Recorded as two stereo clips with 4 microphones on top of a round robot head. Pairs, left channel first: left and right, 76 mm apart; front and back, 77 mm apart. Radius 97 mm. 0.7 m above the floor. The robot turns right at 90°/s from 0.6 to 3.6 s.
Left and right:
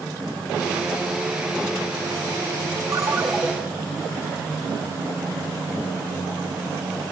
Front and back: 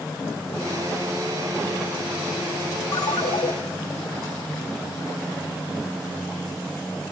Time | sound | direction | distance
2.9 | a ringtone | 40° right | 2.0 m